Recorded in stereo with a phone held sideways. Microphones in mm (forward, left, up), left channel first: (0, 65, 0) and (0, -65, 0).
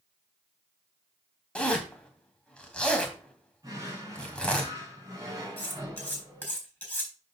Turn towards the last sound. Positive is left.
turn(degrees=15)  # may be behind; listen again after turning